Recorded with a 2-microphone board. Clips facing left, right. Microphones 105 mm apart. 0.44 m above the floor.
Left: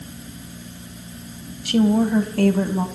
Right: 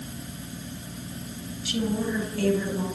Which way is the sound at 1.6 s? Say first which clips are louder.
Left 10 dB; 60° left (ahead or behind).